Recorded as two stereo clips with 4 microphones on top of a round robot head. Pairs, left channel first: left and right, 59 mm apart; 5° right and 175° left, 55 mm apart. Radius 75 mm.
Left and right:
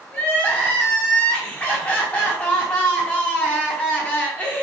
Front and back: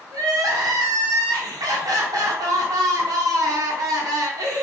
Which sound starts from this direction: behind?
Crying, at 0.1 s.